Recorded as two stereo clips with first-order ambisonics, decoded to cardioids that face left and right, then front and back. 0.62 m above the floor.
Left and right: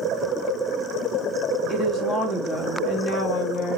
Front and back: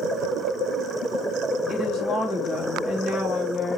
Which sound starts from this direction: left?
A woman speaking, at 1.7 s.